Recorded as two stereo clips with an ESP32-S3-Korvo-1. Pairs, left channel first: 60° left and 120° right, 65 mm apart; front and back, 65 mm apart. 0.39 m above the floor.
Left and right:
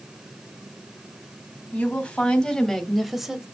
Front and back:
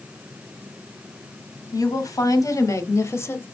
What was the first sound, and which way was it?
A woman speaking, 5° right.